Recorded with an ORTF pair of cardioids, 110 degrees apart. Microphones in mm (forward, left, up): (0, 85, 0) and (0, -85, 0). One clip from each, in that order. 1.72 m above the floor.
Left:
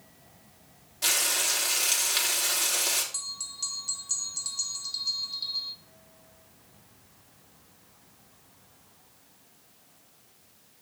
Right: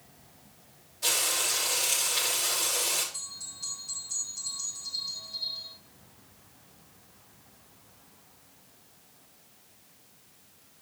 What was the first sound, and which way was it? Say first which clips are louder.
Frying: left 2 dB; 60° left.